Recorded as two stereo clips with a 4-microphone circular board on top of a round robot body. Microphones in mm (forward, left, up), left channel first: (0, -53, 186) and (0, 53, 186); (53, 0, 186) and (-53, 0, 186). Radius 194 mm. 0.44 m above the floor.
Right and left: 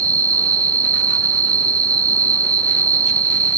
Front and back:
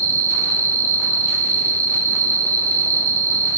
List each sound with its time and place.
0.0 s an insect: 130° left, 1.4 m